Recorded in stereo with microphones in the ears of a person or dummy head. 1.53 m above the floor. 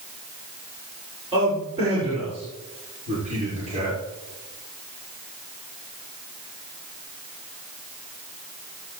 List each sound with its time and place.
1.3 s a man speaking: 30° right (ahead or behind), 6.5 m; by 4.0 s 40° right (ahead or behind), 5.5 m